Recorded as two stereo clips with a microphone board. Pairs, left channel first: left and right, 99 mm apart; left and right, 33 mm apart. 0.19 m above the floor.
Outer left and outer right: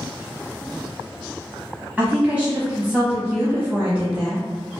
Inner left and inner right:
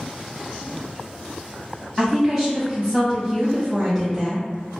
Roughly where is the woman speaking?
Centre.